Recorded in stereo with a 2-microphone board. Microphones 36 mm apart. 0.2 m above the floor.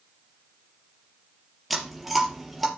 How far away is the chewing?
About 3.5 m.